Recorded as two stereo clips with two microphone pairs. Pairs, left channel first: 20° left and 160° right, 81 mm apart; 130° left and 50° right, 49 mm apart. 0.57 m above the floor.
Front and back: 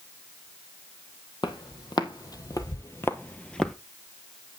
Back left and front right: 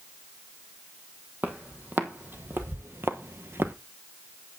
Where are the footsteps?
Straight ahead, 1.5 m; by 3.8 s 70° right, 0.8 m.